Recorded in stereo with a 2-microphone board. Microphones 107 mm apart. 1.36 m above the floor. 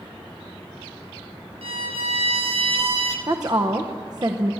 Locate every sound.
1.6 s a violin: 70° right (ahead or behind), 1.5 m
3.3 s a woman speaking: 40° right (ahead or behind), 0.8 m